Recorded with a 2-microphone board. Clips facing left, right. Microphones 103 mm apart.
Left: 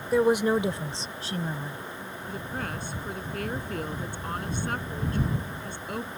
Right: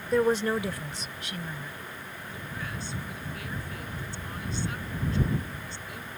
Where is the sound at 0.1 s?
5° left (ahead or behind); by 1.8 s 40° left (ahead or behind).